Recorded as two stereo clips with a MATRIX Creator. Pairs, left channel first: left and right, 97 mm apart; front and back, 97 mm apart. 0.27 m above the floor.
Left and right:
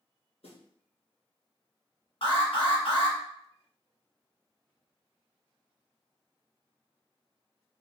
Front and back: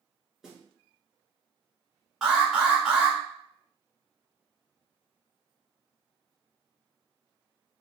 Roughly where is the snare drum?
Left.